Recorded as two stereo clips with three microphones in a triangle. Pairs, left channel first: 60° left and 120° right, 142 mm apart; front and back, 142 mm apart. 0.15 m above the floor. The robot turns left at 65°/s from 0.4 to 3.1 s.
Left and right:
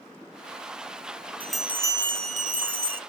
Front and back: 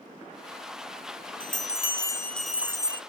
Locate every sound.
1.4 s a bell: 20° right, 0.7 m; by 3.0 s 125° right, 0.7 m